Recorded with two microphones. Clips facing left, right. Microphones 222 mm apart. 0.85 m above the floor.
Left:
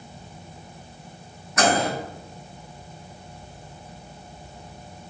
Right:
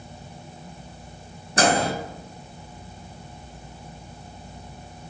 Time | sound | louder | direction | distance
1.6 | a microwave | right 1 dB | 30° right (ahead or behind) | 1.0 m